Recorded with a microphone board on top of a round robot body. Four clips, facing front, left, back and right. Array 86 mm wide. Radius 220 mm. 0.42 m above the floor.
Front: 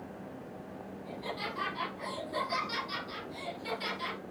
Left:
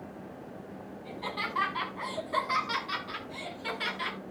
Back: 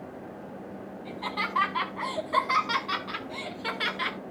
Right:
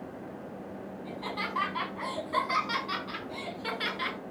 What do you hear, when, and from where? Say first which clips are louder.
1.1 s laughter: even, back 6 dB; 175° left, 6.5 m; by 4.2 s 170° right, 4 m